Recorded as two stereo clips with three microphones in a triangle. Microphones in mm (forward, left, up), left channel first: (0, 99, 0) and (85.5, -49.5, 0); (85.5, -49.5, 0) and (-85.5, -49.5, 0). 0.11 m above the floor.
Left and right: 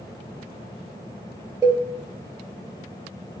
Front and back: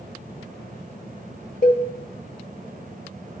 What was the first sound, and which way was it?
A cowbell, 10° left.